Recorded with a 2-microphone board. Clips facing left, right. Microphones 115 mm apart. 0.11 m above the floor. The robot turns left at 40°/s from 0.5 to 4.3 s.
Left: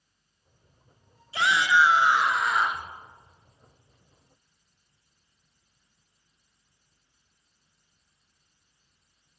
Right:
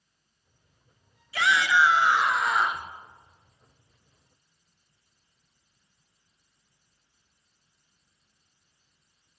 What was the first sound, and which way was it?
A shout, 50° left.